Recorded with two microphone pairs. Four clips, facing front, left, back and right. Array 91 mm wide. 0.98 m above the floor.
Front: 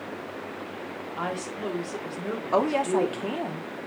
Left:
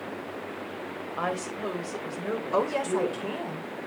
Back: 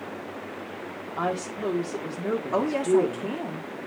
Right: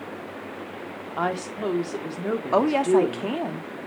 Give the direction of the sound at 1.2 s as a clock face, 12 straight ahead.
4 o'clock.